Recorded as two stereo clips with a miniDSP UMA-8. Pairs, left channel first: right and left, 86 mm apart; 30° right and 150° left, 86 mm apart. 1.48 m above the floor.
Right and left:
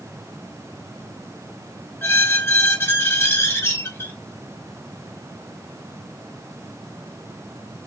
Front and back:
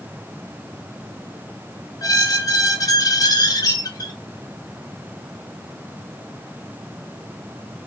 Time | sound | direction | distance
2.0 | a squeak | 40° right | 0.5 m